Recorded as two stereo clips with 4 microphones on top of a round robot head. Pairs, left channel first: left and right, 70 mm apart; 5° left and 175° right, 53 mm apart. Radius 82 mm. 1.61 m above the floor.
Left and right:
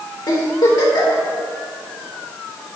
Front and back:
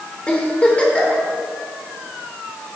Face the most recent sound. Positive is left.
turn(degrees=70)